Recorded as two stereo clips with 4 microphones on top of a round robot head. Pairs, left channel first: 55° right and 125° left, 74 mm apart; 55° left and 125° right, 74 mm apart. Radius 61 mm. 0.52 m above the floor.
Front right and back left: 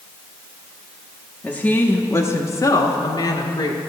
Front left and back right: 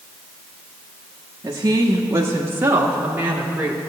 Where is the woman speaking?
120° right, 0.9 m; by 3.8 s 50° right, 1.5 m.